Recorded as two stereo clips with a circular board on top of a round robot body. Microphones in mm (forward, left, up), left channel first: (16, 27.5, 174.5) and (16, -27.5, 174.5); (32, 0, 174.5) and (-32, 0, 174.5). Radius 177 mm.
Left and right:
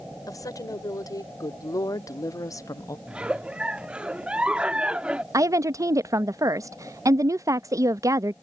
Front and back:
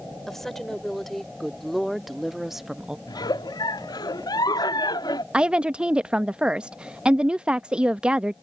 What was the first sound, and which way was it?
A woman speaking, 85° left.